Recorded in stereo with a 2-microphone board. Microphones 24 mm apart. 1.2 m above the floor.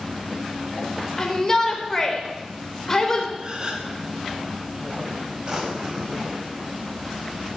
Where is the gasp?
35° right (ahead or behind), 2.5 m.